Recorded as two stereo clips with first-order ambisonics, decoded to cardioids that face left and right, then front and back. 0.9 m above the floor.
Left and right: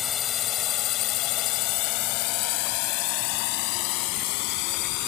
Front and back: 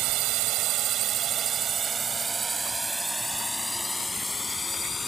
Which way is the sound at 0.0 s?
150° left.